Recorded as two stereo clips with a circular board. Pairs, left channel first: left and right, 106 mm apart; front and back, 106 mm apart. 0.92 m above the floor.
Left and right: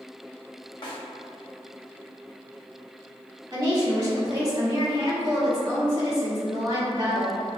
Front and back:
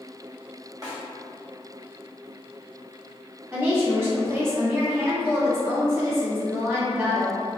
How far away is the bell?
No bell in this recording.